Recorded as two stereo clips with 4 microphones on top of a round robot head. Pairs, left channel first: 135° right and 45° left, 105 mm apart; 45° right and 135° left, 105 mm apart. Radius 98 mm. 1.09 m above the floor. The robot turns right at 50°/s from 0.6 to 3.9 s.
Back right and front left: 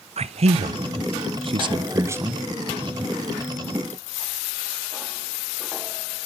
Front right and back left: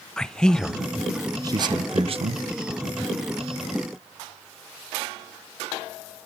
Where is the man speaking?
35° left, 0.6 m; by 2.4 s 125° left, 0.6 m.